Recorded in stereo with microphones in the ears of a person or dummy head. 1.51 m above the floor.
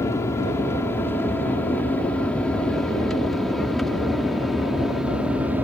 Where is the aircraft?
20° left (ahead or behind); by 5.6 s centre (ahead or behind).